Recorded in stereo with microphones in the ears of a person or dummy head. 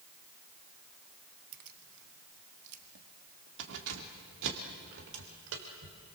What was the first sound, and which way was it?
Keys jangling, 50° right (ahead or behind).